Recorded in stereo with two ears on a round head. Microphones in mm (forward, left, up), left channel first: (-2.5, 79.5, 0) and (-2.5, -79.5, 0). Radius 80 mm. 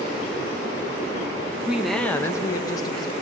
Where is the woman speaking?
5° right (ahead or behind), 0.7 m; by 3.1 s 25° left (ahead or behind), 1.3 m.